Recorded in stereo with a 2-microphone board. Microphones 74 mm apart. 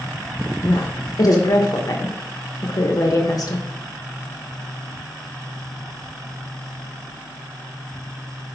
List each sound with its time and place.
0.6 s a woman speaking: 50° left (ahead or behind), 0.9 m